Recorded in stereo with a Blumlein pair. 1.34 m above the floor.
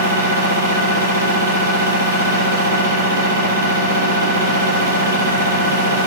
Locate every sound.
0.0 s a machine running: 70° right, 3 m